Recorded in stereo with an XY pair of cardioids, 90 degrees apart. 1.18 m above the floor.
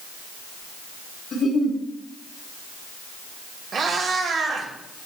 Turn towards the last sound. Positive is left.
turn(degrees=-65)